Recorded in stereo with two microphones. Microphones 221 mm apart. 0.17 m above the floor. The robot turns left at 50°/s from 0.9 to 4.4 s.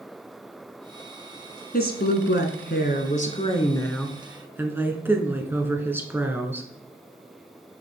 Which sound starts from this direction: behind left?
A woman speaking, at 1.7 s.